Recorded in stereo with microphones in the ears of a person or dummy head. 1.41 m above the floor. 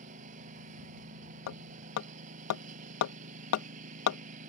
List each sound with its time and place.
0.0 s a lawn mower: 45° right (ahead or behind)
1.5 s hammering: 80° left